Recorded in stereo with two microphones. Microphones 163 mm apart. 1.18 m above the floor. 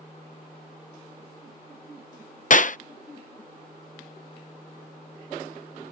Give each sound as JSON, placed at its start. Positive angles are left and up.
{"t": 2.5, "sound": "a clap", "side_deg": 55}